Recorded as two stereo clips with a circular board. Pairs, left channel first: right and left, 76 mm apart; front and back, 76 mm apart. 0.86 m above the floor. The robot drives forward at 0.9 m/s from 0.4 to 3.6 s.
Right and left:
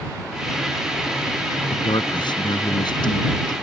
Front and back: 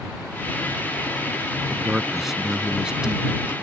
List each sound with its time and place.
1.7 s a man speaking: 90° right; by 3.5 s 100° right